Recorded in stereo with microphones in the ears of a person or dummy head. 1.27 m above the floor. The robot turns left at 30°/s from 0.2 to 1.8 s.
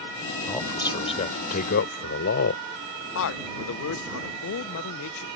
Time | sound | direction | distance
0.5 | a man speaking | 160° left | ?
3.1 | a man speaking | 65° left (ahead or behind) | ?